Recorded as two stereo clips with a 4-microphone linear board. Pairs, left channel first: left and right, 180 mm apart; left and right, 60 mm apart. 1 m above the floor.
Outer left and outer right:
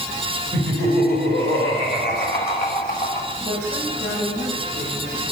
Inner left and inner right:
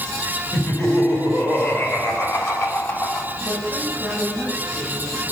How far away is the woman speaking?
About 6.5 m.